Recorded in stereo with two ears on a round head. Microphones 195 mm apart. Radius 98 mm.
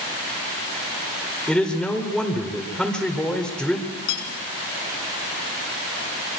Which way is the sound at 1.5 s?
5° left (ahead or behind).